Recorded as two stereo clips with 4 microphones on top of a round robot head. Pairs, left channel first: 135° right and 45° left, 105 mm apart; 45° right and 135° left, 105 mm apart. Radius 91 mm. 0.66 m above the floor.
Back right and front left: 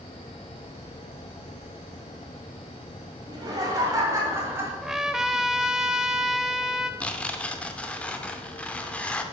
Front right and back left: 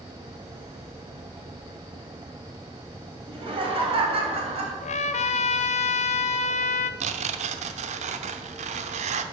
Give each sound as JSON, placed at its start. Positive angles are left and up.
{"t": 3.3, "sound": "laughter", "azimuth_deg": 95, "distance_m": 3.5}
{"t": 4.8, "sound": "a trumpet", "azimuth_deg": -40, "distance_m": 0.6}
{"t": 7.0, "sound": "tearing paper", "azimuth_deg": 145, "distance_m": 0.7}